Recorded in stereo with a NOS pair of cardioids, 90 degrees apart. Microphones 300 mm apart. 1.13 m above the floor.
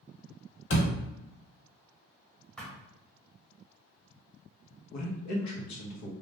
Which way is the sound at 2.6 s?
5° left.